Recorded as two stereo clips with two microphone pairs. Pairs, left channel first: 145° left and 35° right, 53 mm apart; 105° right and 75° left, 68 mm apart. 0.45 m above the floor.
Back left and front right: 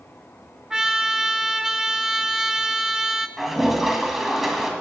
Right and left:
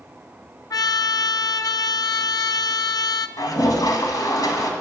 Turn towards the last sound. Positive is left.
turn(degrees=-120)